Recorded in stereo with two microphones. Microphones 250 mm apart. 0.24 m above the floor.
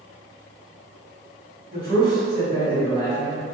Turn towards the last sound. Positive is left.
turn(degrees=15)  # may be behind; listen again after turning